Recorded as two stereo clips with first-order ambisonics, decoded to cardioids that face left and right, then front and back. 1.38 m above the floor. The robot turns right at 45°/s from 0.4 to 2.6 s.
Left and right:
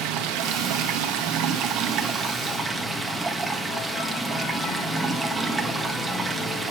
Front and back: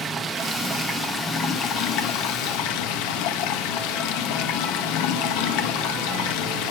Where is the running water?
110° right, 1.6 m; by 6.7 s 10° right, 1.6 m.